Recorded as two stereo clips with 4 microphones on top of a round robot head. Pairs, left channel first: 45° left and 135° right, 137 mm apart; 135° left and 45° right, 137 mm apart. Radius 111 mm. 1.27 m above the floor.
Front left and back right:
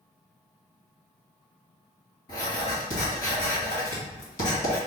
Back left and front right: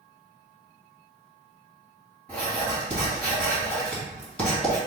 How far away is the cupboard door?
I don't hear a cupboard door.